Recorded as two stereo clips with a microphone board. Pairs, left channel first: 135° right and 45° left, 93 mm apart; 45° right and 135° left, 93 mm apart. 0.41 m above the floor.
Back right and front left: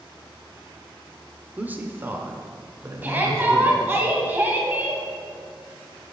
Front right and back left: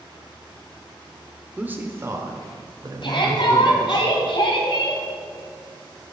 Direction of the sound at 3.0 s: 25° right.